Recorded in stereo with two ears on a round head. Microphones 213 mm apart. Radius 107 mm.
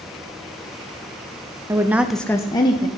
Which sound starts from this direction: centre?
A woman speaking, at 1.7 s.